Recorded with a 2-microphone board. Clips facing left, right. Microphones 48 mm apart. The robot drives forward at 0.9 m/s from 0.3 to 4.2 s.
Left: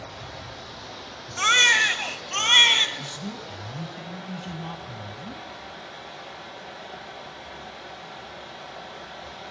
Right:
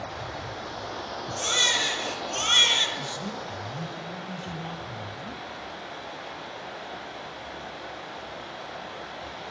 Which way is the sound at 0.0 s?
40° right (ahead or behind).